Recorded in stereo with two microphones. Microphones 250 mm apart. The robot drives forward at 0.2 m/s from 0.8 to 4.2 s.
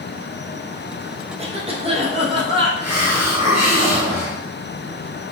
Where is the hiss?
80° left, 1.4 m; by 4.4 s 85° left, 1.4 m.